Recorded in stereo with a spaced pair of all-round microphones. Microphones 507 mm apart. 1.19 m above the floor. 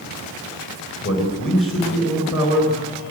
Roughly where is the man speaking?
Left.